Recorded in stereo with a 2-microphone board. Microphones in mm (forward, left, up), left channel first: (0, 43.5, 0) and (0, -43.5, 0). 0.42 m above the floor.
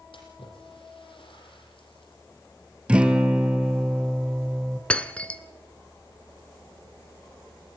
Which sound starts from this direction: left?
A splash, at 0.1 s.